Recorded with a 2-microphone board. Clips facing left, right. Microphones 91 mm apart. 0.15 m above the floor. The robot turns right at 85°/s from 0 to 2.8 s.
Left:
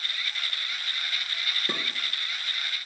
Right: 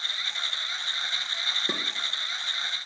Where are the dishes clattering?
10° right (ahead or behind), 2 m; by 1.8 s centre (ahead or behind), 2 m.